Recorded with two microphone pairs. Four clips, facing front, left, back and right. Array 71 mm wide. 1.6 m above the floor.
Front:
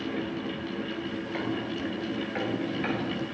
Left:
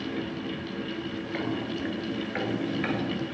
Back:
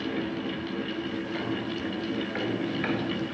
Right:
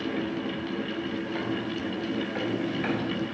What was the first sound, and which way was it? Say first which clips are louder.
Footsteps: even, even; 80° left.